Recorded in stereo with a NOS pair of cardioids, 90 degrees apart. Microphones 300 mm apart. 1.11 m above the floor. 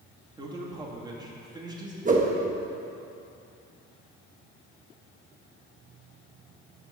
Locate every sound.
0.4 s a man speaking: 15° right, 2.5 m
2.0 s a whoosh: 25° right, 1.5 m